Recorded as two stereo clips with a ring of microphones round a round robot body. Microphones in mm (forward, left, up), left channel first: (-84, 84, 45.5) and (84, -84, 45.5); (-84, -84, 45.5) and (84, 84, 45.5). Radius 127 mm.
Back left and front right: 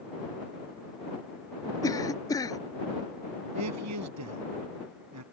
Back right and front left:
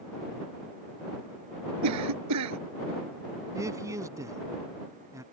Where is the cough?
60° left.